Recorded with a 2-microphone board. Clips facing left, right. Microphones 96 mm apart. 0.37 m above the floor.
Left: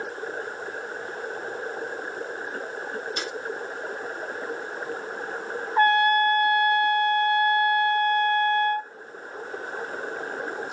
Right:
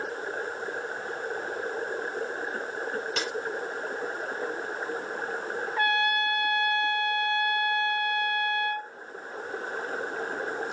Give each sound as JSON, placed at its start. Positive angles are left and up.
{"t": 3.2, "sound": "a snare drum", "side_deg": -80, "distance_m": 5.0}
{"t": 5.8, "sound": "a trumpet", "side_deg": 35, "distance_m": 1.8}